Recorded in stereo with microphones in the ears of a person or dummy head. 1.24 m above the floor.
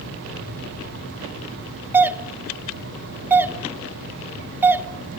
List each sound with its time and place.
1.9 s a doorbell: 10° right (ahead or behind), 0.5 m